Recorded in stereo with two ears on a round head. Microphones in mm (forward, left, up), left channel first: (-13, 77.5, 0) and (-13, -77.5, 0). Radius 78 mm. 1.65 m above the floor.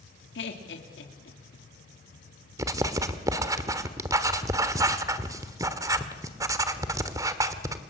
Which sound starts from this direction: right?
Writing, at 2.6 s.